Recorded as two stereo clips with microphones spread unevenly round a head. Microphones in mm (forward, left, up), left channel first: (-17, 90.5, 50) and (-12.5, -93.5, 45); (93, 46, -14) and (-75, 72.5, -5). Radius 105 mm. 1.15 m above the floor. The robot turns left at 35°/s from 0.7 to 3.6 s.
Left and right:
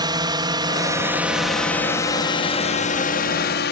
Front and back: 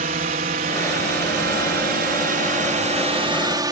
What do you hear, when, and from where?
0.0 s a drone: 150° right; by 3.7 s 105° left